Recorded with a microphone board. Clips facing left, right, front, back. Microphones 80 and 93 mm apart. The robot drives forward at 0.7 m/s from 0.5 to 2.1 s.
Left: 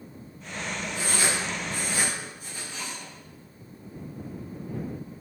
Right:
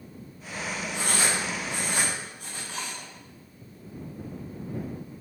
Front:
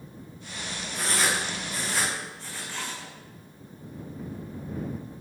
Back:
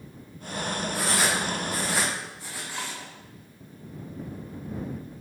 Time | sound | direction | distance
0.9 | writing | 100° right | 8 m